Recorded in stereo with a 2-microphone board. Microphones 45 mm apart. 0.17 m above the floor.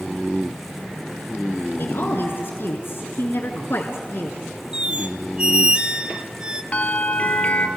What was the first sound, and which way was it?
A woman speaking, 60° left (ahead or behind).